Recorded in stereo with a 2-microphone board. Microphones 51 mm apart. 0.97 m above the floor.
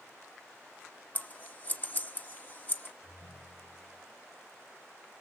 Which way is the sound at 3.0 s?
85° left.